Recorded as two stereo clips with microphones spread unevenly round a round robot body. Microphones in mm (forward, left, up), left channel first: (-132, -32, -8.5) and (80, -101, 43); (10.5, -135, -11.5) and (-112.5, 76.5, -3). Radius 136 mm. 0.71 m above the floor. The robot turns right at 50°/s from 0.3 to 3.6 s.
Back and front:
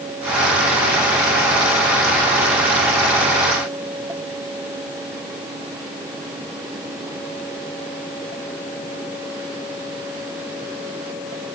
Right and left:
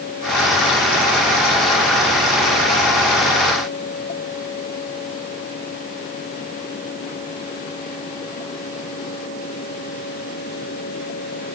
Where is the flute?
I don't hear a flute.